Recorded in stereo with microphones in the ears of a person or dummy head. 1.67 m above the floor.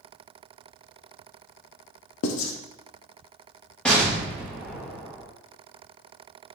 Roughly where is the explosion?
Centre.